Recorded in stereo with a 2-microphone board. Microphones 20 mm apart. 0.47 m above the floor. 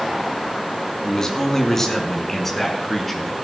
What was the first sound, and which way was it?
A man speaking, 25° left (ahead or behind).